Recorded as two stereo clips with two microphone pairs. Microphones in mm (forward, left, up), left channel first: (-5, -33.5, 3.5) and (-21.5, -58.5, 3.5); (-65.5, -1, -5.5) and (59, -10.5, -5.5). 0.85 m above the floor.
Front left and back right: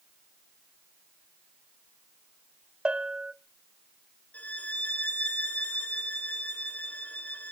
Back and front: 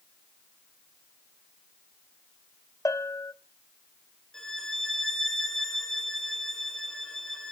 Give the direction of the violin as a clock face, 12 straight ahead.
9 o'clock.